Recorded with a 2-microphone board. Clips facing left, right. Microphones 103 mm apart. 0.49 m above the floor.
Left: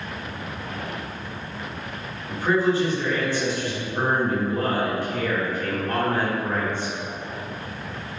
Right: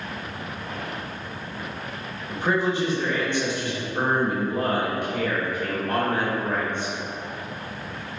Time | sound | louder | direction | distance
2.3 | a man speaking | left 3 dB | 20° right (ahead or behind) | 1.4 m